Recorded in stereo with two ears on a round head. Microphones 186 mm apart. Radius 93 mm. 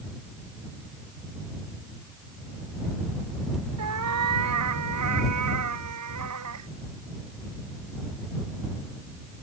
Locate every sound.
3.8 s a cat meowing: 85° right; by 6.7 s 80° right